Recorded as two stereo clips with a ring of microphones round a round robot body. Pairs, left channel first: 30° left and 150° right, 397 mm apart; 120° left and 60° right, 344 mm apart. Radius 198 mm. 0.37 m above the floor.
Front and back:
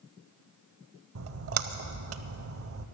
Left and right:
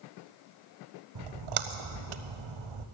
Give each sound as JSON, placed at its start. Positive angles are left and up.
{"t": 1.1, "sound": "a splash", "azimuth_deg": -90, "distance_m": 0.6}